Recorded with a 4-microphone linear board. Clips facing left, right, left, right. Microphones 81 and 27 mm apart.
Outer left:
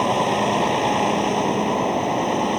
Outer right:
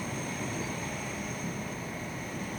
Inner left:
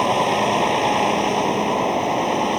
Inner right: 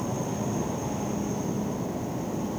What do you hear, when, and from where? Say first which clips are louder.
0.0 s a vehicle: outer left 17 dB, inner left 13 dB; 80° left